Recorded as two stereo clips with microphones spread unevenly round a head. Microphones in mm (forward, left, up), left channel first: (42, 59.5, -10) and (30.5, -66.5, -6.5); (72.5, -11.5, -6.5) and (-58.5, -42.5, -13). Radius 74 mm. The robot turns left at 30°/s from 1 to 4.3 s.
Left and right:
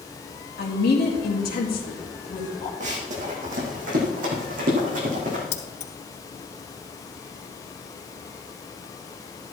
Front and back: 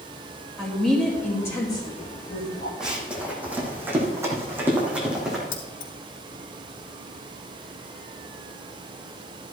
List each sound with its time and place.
0.6 s a woman speaking: 100° left, 3 m; by 2.7 s 50° left, 3 m
2.8 s running footsteps: 80° right, 4 m
5.5 s keys jangling: 55° left, 2.5 m